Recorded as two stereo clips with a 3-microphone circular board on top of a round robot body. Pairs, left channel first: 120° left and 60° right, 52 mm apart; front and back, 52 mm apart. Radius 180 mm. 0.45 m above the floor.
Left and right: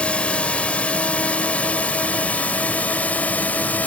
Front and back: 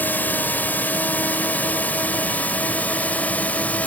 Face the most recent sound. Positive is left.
turn(degrees=65)